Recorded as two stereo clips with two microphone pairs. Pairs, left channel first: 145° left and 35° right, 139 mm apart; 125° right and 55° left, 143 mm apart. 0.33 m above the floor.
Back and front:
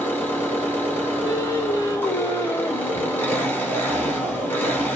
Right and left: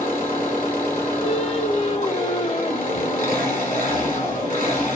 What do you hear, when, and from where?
0.0 s an engine running: 140° right, 1.6 m
1.2 s singing: 155° right, 0.5 m